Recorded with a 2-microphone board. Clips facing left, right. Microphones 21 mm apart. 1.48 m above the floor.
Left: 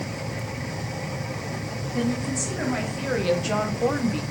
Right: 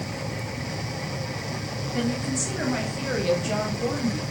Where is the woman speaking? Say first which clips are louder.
Left 1 dB; 15° right (ahead or behind), 2.5 m; by 4.2 s 70° left (ahead or behind), 1.1 m.